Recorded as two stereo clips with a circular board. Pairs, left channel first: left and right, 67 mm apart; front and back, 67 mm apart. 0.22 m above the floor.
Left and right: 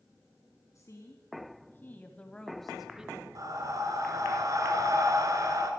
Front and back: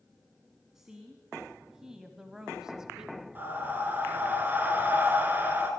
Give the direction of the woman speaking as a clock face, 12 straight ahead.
9 o'clock.